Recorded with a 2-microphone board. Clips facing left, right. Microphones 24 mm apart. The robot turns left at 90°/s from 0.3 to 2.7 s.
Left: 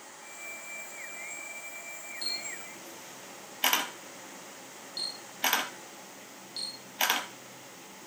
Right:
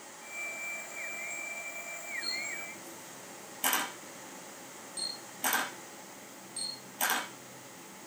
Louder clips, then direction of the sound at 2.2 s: Left 3 dB; 65° left (ahead or behind).